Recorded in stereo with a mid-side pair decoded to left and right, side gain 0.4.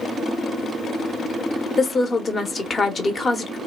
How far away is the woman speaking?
About 1.0 m.